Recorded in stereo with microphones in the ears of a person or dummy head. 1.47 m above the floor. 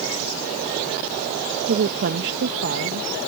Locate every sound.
1.7 s a woman speaking: 55° right (ahead or behind)